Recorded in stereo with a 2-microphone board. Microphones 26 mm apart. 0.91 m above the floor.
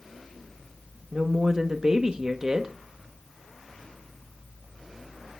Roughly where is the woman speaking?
Right.